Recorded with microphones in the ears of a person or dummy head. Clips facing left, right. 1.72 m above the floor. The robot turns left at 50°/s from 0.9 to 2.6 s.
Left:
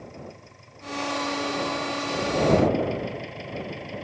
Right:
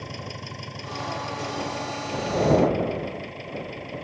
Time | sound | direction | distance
0.0 | an engine running | 95° right | ?